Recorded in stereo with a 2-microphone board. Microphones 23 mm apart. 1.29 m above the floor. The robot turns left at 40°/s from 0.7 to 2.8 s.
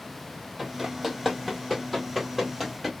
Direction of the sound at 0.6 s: 10° right (ahead or behind).